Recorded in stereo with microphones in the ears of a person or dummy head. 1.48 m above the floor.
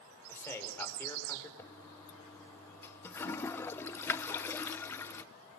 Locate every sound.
0.3 s a man speaking: 20° left (ahead or behind), 5.5 m
1.6 s a toilet flushing: 20° left (ahead or behind), 0.9 m